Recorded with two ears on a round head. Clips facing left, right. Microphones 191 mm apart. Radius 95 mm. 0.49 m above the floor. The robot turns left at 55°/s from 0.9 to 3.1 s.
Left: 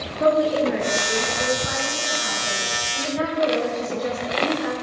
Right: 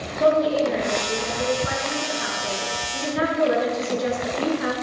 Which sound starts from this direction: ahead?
A woman speaking, at 0.2 s.